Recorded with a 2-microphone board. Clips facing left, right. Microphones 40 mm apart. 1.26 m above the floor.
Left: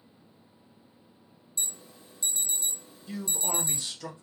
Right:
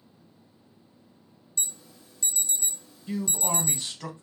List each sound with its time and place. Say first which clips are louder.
1.6 s an alarm: right 1 dB; 25° left (ahead or behind), 1.4 m
3.1 s a man speaking: right 4 dB; 40° right (ahead or behind), 1.4 m